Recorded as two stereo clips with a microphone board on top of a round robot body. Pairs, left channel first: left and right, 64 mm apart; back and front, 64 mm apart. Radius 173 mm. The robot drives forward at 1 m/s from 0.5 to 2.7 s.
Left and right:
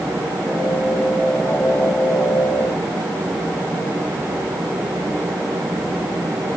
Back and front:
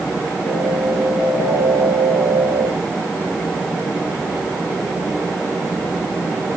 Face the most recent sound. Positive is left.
No sound to turn to.